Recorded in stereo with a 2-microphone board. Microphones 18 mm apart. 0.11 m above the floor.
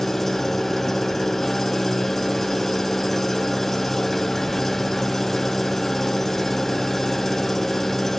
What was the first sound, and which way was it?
An engine running, 20° left (ahead or behind).